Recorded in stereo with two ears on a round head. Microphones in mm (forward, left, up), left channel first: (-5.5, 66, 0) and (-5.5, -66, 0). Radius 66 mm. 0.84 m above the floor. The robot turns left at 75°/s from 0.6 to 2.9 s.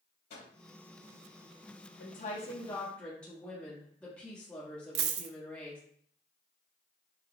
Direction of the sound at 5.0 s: 80° right.